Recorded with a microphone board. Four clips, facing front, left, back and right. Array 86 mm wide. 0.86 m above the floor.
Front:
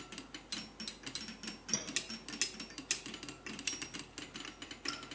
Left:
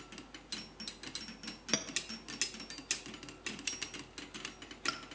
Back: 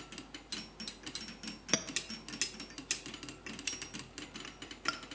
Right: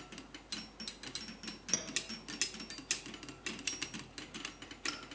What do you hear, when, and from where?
1.7 s a clink: 155° left, 0.8 m